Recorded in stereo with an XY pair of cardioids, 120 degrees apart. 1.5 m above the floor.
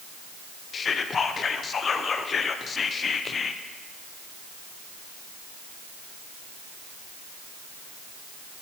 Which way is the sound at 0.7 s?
35° left.